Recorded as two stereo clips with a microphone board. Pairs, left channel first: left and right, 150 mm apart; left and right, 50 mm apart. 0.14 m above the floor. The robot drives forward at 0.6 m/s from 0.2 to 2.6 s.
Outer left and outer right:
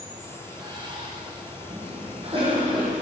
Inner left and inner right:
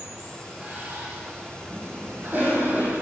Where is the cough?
35° right (ahead or behind), 4.5 m.